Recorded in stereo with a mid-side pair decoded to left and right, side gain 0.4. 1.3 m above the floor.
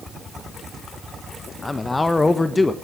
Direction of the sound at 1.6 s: 20° left.